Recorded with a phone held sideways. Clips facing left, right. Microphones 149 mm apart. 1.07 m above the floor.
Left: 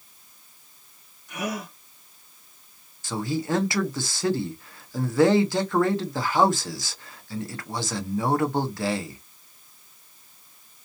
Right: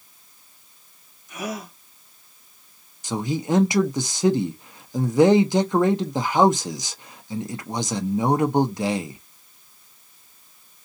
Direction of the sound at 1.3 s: 65° left (ahead or behind).